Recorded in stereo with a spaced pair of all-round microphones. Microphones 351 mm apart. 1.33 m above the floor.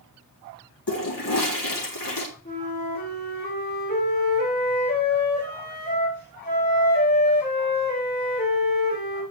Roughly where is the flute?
Left.